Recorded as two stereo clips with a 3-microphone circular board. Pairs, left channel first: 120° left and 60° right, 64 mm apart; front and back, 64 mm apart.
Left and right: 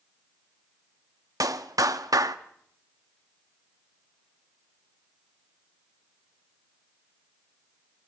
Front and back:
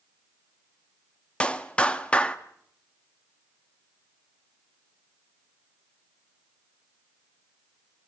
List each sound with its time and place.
1.4 s a clap: 70° right, 1.3 m